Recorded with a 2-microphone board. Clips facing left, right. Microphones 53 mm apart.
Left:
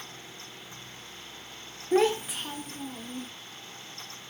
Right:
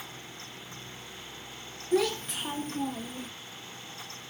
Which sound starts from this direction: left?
A child speaking, at 1.9 s.